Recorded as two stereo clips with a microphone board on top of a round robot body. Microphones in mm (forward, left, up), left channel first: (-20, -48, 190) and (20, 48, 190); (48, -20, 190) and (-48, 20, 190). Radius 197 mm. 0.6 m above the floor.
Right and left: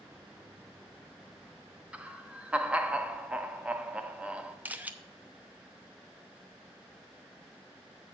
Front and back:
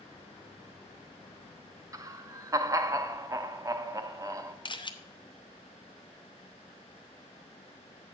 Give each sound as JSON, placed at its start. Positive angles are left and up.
{"t": 1.9, "sound": "laughter", "azimuth_deg": 135, "distance_m": 1.1}
{"t": 4.7, "sound": "a camera shutter", "azimuth_deg": -5, "distance_m": 1.0}